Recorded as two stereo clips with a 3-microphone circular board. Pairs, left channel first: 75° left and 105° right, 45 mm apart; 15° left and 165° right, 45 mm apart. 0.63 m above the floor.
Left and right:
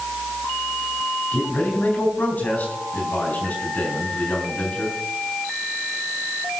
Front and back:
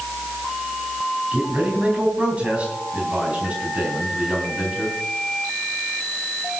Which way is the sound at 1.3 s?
130° left.